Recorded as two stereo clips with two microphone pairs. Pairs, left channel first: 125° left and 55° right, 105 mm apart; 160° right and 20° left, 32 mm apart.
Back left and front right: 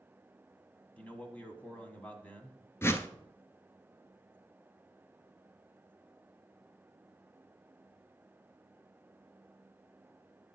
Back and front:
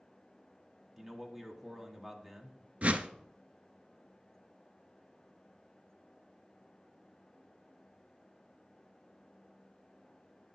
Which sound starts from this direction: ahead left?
A whoosh, at 2.8 s.